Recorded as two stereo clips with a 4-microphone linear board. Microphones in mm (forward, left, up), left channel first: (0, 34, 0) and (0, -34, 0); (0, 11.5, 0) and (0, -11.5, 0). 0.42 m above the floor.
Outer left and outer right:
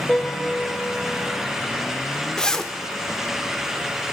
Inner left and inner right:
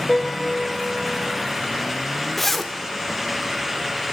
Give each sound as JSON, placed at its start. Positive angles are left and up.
{"t": 0.1, "sound": "a piano", "side_deg": 10, "distance_m": 1.8}
{"t": 2.4, "sound": "a zipper", "side_deg": 10, "distance_m": 0.5}